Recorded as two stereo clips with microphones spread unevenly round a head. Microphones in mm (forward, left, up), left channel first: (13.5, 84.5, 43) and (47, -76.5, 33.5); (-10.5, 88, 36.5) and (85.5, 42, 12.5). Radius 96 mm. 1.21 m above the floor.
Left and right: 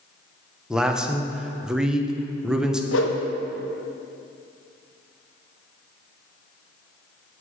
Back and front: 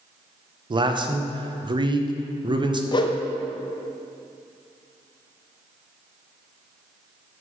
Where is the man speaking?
5° left, 0.9 m.